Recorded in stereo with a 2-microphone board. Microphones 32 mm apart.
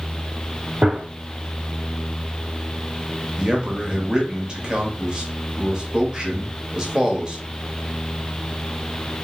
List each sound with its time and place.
0.8 s a gunshot: 30° right (ahead or behind), 0.9 m
3.4 s a man speaking: 20° right (ahead or behind), 0.9 m